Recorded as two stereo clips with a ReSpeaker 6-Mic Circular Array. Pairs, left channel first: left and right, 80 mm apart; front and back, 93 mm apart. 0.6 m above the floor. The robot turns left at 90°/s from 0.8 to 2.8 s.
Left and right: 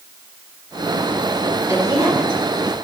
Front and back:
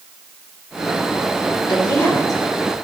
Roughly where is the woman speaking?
Ahead right.